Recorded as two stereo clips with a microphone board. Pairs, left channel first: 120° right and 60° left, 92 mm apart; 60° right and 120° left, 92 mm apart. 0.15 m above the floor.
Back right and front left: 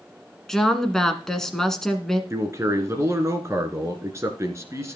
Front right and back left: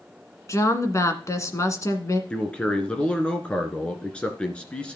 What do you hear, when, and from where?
0.5 s a woman speaking: 40° right, 1.4 m
2.3 s a man speaking: 15° left, 1.8 m